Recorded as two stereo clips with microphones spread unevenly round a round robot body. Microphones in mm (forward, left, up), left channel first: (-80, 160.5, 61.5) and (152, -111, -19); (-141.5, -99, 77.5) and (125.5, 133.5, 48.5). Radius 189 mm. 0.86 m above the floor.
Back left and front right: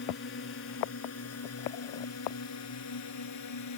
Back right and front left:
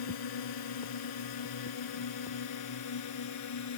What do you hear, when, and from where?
0.0 s a drone: 165° right; by 3.8 s 175° left